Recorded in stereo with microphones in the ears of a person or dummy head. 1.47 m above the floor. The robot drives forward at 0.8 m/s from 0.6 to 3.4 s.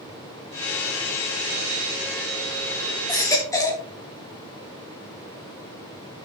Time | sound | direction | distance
3.1 | a baby crying | 20° left (ahead or behind) | 1.2 m